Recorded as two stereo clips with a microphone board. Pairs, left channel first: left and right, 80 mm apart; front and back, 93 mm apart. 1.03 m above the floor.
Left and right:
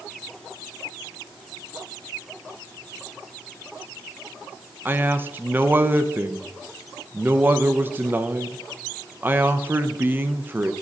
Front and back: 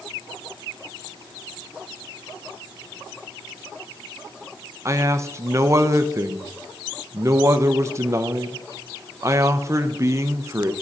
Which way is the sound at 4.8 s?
140° right.